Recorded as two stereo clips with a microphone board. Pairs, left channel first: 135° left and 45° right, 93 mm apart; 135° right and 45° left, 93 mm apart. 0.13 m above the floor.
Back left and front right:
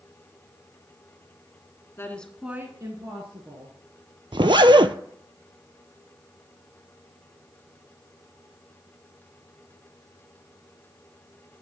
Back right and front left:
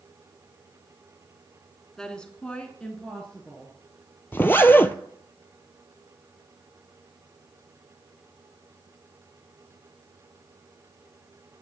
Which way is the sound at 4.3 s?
70° right.